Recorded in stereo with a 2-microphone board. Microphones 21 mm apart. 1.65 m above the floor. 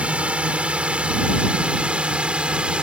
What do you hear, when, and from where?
0.0 s a drone: 70° right (ahead or behind); by 2.8 s 55° right (ahead or behind)